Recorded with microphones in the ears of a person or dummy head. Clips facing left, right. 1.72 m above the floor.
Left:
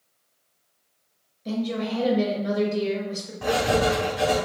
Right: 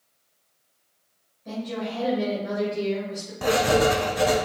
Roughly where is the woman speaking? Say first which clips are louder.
Left 4 dB; left.